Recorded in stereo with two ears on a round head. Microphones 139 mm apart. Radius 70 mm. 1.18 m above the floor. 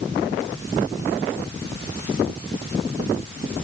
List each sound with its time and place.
Only background noise.